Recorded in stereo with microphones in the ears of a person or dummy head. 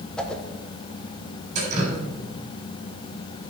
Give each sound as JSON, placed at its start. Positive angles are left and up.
{"t": 0.2, "sound": "a whoosh", "side_deg": 0, "distance_m": 1.0}
{"t": 1.6, "sound": "dripping", "side_deg": -50, "distance_m": 3.5}